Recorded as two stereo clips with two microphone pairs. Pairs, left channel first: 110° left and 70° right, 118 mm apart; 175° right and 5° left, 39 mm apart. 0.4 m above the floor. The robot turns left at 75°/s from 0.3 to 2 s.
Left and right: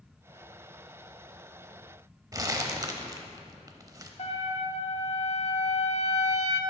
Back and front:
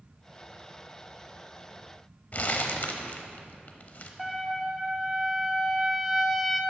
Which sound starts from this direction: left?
A trumpet, at 4.2 s.